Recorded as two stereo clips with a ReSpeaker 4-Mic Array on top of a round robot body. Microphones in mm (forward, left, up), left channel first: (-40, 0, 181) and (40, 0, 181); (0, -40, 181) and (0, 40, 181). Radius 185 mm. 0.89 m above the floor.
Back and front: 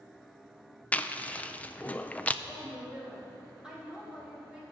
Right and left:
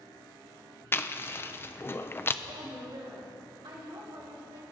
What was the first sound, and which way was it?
Chewing, 120° right.